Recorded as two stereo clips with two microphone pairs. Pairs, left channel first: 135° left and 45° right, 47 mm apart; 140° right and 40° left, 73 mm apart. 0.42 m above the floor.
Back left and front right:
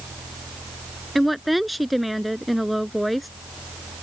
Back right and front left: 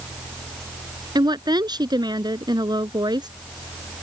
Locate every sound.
1.1 s a woman speaking: 45° left